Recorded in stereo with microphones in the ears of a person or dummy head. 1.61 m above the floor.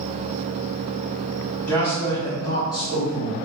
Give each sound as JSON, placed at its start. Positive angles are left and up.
{"t": 1.7, "sound": "a man speaking", "side_deg": 15, "distance_m": 2.0}